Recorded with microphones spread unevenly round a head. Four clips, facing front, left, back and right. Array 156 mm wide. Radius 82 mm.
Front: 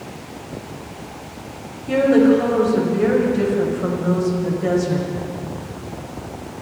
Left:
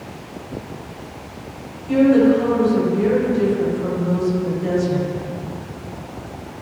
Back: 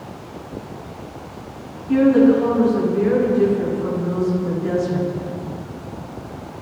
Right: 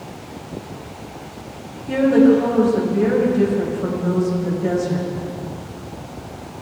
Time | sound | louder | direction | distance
1.9 | a woman speaking | even, even | 15° right | 9 m